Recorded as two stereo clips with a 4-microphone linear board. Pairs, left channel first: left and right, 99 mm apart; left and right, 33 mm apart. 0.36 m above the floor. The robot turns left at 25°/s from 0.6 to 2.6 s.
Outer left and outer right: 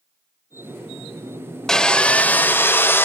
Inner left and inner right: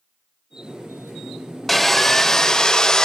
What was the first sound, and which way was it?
Sawing, 5° left (ahead or behind).